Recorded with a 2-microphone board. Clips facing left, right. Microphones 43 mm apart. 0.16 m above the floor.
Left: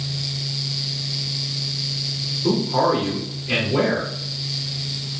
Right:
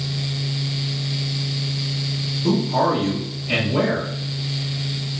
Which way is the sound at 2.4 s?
5° left (ahead or behind).